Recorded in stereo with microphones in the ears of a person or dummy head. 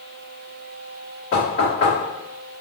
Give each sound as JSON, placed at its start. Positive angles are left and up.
{"t": 1.3, "sound": "knocking", "side_deg": 40, "distance_m": 1.5}